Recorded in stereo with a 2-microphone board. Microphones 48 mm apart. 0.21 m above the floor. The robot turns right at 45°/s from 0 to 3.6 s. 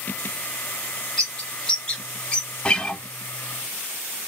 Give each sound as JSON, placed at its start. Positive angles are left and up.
{"t": 1.2, "sound": "a bird", "side_deg": 15, "distance_m": 1.0}
{"t": 2.6, "sound": "a guitar", "side_deg": 20, "distance_m": 0.5}